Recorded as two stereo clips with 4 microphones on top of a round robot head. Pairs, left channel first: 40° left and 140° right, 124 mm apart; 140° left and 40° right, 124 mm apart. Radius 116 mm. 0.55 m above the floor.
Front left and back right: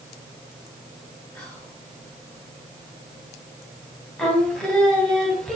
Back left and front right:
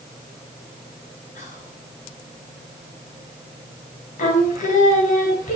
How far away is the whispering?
About 9 m.